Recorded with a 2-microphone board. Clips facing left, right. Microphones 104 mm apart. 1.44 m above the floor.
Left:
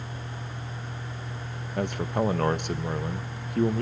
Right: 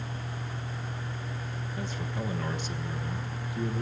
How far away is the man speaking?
About 1.3 m.